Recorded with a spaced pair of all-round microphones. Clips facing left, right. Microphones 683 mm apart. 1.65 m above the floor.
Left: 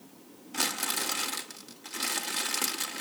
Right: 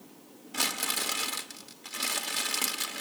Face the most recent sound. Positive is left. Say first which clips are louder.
# left 1 dB
turn(degrees=-5)  # may be behind; listen again after turning